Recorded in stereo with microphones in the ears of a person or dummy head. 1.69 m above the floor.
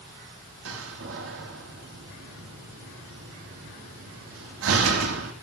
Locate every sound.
0.7 s a door slam: 80° right, 3.5 m